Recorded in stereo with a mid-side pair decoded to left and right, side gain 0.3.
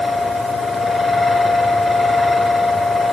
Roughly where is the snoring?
I don't hear snoring.